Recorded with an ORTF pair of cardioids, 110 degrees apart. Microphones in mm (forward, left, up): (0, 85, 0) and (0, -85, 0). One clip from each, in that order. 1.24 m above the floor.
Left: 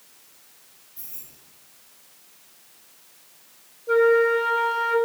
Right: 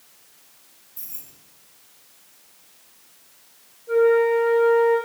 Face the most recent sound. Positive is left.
turn(degrees=45)